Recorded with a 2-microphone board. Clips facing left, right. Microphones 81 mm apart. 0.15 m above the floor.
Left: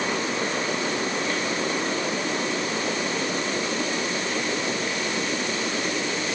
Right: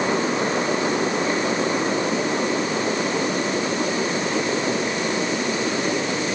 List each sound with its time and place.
Only background noise.